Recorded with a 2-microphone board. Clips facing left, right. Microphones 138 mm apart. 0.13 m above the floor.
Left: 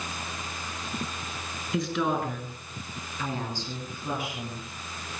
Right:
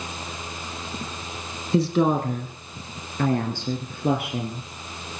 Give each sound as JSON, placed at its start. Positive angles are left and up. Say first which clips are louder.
{"t": 1.7, "sound": "a woman speaking", "louder": "right 7 dB", "side_deg": -30, "distance_m": 1.5}